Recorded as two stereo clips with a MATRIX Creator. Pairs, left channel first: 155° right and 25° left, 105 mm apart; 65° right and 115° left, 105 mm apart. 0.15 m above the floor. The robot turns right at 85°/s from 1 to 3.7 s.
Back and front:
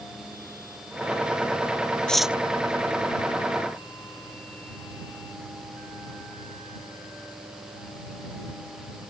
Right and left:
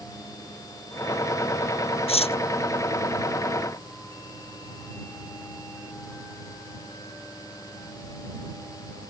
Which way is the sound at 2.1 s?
75° right.